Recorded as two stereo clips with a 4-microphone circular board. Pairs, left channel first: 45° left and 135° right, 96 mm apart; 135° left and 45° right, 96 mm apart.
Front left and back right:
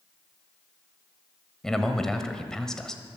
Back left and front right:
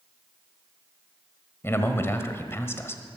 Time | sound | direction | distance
1.6 | a man speaking | 120° left | 1.3 m